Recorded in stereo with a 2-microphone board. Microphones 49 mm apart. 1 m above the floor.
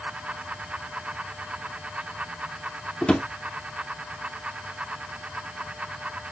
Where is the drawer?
20° left (ahead or behind), 0.9 m.